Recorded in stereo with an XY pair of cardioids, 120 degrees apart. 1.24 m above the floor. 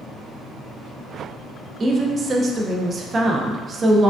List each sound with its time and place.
1.8 s a woman speaking: 35° right, 0.6 m